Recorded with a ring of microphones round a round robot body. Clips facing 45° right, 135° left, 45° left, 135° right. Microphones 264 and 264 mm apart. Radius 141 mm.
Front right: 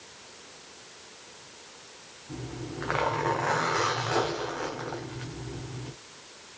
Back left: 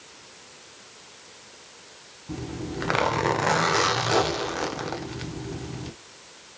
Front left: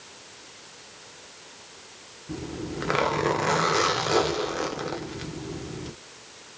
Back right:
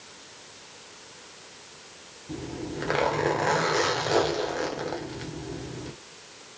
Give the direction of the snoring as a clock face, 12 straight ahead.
I don't hear snoring.